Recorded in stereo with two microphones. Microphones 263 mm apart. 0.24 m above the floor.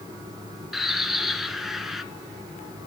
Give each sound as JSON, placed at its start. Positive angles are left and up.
{"t": 0.7, "sound": "a bird", "side_deg": 0, "distance_m": 1.3}